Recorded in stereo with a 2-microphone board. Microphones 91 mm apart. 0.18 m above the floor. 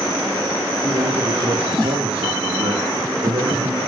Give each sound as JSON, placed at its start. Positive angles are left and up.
{"t": 0.8, "sound": "a man speaking", "side_deg": -75, "distance_m": 8.5}